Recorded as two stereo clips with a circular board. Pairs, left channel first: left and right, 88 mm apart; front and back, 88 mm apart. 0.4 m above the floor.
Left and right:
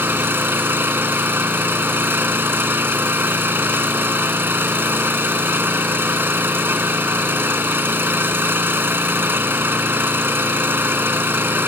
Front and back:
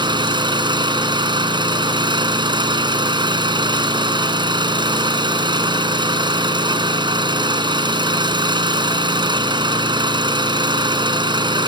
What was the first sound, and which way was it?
An engine running, 155° right.